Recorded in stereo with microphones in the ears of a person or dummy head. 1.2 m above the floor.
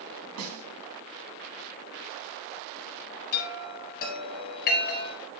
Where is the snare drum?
80° right, 3.5 m.